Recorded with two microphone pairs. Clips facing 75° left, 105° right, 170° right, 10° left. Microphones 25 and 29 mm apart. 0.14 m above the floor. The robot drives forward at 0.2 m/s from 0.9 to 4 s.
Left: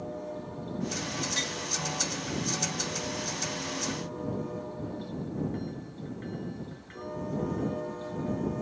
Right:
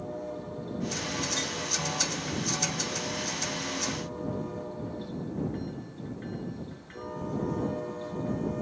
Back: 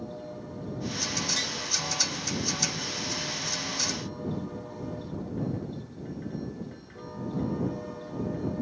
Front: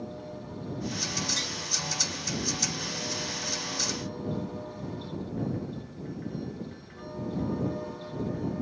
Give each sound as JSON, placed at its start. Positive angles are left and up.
{"t": 1.4, "sound": "tapping", "azimuth_deg": 105, "distance_m": 1.4}